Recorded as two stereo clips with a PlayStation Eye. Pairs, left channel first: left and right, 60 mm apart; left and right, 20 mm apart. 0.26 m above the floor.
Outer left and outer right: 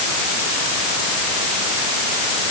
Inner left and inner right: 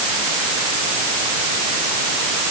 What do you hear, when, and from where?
Only background noise.